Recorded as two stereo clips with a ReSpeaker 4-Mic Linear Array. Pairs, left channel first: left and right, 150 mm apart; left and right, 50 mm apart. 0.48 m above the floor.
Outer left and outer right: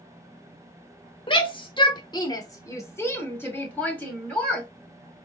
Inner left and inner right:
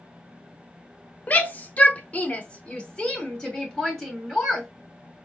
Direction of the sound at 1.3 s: 35° left (ahead or behind).